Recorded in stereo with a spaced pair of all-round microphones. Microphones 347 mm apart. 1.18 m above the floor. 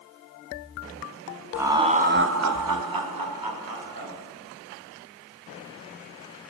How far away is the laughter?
About 0.9 m.